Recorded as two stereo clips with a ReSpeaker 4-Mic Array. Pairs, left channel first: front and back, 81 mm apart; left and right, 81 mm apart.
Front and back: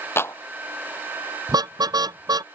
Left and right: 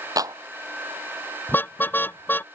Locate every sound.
0.2 s a clap: 55° right
1.5 s a car horn: 155° left